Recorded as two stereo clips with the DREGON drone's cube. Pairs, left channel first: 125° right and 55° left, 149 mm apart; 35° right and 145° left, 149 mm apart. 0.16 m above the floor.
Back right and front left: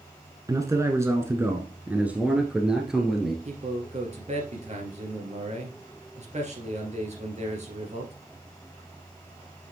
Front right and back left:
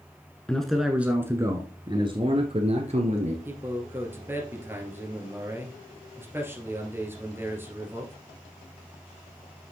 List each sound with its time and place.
0.5 s a man speaking: 40° left, 1.1 m; by 3.4 s 145° left, 1.7 m
3.5 s a man speaking: 75° left, 2.5 m